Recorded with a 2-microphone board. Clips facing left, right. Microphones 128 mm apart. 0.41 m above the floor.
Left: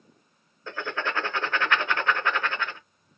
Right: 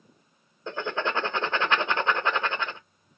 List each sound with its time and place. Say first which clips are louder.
0.7 s writing: right 2 dB; 25° right (ahead or behind), 0.7 m